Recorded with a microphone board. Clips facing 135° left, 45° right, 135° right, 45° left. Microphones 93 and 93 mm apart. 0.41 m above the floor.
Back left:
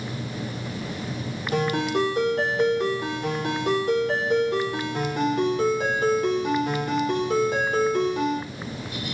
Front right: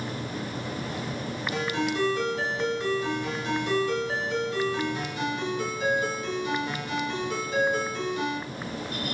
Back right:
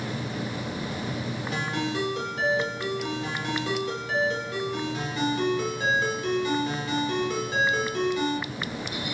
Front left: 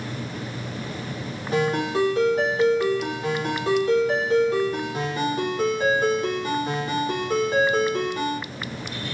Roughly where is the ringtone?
Left.